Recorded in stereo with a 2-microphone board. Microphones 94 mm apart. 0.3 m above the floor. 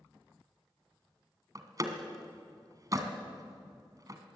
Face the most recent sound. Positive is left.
turn(degrees=-40)  # may be behind; listen again after turning